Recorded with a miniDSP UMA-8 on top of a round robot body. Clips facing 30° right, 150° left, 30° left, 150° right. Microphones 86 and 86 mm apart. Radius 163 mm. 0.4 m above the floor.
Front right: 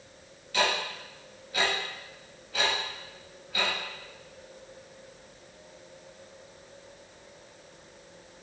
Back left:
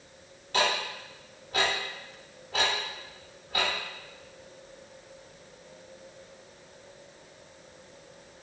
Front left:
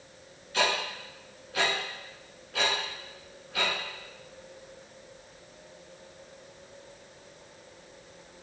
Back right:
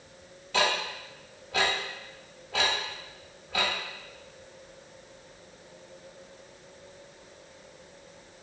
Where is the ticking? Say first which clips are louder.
Even, back right 1 dB; 155° right, 0.6 m.